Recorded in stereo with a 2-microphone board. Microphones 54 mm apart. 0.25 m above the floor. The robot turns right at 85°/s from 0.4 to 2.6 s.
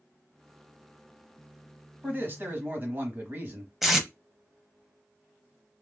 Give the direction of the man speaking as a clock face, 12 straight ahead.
4 o'clock.